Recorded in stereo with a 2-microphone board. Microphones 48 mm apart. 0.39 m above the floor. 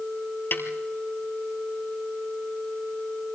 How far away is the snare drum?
About 2 m.